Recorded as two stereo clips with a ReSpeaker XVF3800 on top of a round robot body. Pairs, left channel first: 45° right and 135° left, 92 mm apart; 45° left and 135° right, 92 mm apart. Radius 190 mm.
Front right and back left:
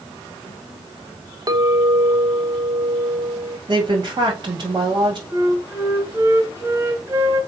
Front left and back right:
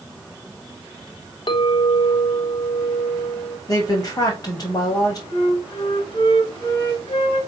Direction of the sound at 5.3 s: 75° left.